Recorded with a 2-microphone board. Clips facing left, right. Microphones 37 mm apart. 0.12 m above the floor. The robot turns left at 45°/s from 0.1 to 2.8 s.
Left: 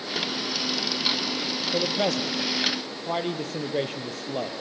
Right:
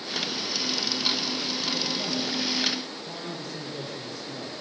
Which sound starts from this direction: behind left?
A man speaking, at 1.7 s.